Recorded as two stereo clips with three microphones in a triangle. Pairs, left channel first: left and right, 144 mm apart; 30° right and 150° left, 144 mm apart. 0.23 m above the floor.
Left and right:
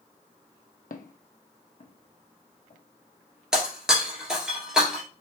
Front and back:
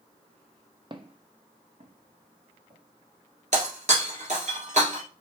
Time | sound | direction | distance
0.9 | footsteps | 95° left | 0.5 m
3.5 | breaking glass | 175° right | 1.7 m